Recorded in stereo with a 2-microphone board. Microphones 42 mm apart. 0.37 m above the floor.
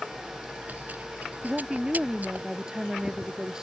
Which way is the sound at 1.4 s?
15° right (ahead or behind).